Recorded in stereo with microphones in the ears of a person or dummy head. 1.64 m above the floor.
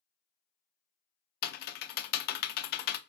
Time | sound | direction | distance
1.4 | typing on a keyboard | 60° left (ahead or behind) | 0.5 m